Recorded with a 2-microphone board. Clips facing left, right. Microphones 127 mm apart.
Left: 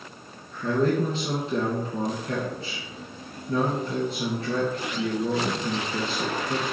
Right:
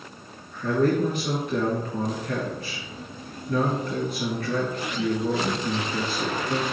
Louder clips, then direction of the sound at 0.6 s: Right 1 dB; 30° left (ahead or behind).